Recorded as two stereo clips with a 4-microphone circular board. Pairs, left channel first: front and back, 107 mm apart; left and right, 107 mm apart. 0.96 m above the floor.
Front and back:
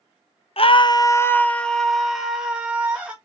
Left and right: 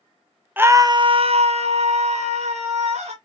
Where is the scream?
20° right, 0.5 m; by 3.1 s 100° right, 1.7 m.